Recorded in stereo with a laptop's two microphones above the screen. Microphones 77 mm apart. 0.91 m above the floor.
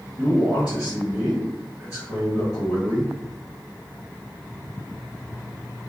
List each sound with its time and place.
0.2 s a man speaking: 5° right (ahead or behind), 1.5 m